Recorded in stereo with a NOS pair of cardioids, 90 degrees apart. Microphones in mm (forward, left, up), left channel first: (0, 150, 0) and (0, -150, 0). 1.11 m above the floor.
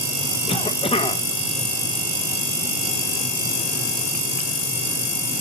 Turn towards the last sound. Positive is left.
turn(degrees=15)